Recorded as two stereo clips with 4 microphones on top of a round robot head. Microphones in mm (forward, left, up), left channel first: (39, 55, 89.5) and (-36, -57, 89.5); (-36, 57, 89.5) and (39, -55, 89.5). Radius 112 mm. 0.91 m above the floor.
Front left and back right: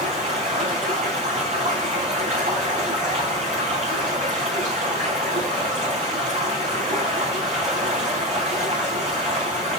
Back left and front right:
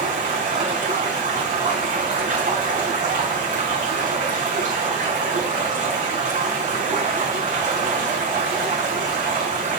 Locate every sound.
0.0 s running water: 90° right, 5 m